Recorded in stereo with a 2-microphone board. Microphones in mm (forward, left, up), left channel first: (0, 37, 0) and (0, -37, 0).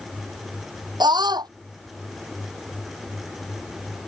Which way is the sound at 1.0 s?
75° right (ahead or behind).